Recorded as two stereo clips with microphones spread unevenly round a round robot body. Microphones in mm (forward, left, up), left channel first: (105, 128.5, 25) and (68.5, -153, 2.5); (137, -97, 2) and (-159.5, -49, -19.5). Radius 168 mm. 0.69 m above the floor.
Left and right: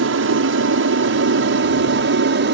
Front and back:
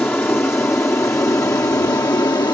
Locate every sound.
0.0 s an aircraft: 95° right; by 2.5 s 85° right